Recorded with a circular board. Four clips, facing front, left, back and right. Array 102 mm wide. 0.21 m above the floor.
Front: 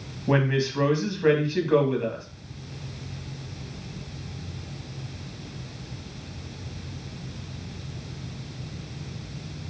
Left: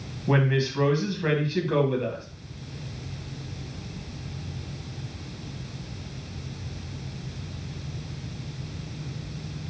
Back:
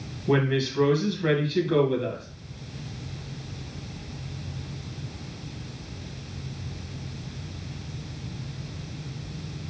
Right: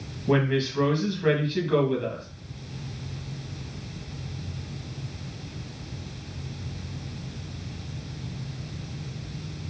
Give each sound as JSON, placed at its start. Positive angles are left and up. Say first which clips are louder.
{"t": 0.3, "sound": "a woman speaking", "louder": "right 1 dB, even", "azimuth_deg": 20, "distance_m": 1.3}